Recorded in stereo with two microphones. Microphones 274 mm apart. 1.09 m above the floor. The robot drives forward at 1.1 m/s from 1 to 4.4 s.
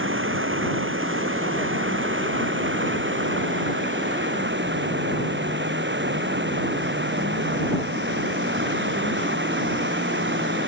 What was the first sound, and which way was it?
Running water, 50° right (ahead or behind).